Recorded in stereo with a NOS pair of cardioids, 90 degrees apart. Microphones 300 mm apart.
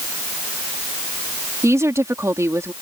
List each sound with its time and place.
1.6 s a woman speaking: 10° right